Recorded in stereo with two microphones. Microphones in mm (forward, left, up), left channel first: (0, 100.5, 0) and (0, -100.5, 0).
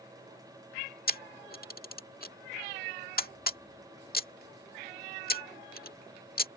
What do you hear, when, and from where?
1.1 s a camera shutter: 50° left (ahead or behind)